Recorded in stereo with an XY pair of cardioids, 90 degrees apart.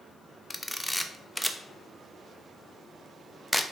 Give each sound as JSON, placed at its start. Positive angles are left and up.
{"t": 0.5, "sound": "a camera shutter", "azimuth_deg": 5, "distance_m": 0.7}